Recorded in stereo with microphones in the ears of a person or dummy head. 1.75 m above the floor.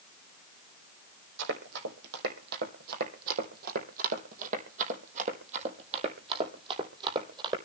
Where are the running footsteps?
65° right (ahead or behind), 5 m; by 7.6 s 25° right (ahead or behind), 4.5 m.